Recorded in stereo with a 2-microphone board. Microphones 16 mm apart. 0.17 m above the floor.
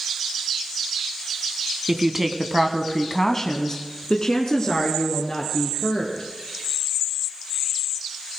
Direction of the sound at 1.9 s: 25° right (ahead or behind).